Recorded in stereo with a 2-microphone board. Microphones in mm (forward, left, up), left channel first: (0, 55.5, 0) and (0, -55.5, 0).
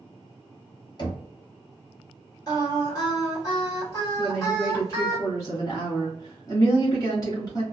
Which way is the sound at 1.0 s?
40° left (ahead or behind).